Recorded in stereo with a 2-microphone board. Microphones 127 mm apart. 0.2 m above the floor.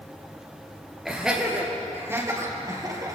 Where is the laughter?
Centre (ahead or behind), 3.5 m; by 3.2 s 30° right (ahead or behind), 4 m.